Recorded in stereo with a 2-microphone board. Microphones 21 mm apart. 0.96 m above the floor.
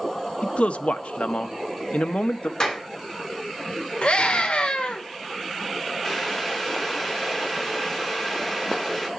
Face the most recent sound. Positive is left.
turn(degrees=15)  # may be behind; listen again after turning